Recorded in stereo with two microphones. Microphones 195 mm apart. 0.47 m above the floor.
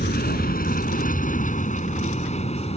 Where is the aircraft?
50° left (ahead or behind); by 2.8 s 30° left (ahead or behind).